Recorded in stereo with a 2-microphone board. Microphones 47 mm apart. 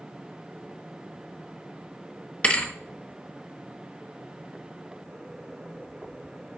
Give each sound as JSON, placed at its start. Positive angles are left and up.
{"t": 2.4, "sound": "a thud", "side_deg": 25, "distance_m": 1.0}